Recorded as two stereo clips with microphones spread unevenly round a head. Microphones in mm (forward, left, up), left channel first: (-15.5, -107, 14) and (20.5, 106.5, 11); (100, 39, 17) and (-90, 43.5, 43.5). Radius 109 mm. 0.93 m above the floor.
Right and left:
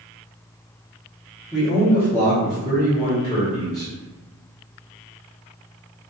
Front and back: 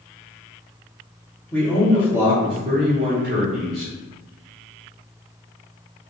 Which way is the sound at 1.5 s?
15° right.